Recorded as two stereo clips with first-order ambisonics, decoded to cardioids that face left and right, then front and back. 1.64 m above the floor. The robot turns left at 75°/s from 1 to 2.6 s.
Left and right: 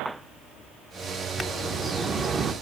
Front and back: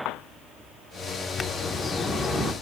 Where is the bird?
5° right, 0.8 m; by 2.5 s 90° right, 0.8 m.